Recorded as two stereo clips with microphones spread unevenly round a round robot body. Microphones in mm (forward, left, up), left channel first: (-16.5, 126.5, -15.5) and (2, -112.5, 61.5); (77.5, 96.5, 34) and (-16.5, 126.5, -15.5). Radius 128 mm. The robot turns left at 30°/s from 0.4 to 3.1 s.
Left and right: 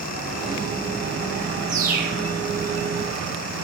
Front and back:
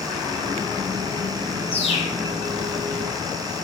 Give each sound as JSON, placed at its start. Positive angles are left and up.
{"t": 1.7, "sound": "a bird", "azimuth_deg": -20, "distance_m": 1.1}